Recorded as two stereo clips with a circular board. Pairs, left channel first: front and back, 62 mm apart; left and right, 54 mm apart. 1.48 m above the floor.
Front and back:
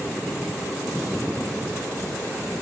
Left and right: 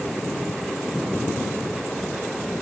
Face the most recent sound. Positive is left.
No sound to turn to.